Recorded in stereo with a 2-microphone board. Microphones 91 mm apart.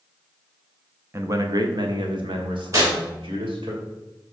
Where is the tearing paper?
35° right (ahead or behind), 3 m.